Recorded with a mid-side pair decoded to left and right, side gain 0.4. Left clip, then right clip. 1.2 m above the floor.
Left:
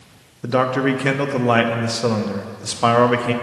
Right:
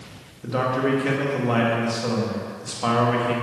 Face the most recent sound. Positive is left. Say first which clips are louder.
# left 4 dB
turn(degrees=60)